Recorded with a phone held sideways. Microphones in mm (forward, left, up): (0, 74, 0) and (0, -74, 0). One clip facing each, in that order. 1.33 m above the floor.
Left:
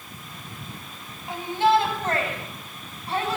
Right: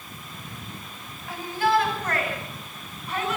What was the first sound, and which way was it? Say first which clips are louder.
A shout: left 3 dB; 20° left (ahead or behind).